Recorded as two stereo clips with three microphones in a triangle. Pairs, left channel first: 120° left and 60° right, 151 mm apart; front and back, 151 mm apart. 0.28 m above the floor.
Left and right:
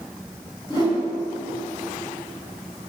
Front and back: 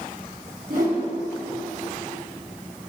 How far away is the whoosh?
About 2.5 m.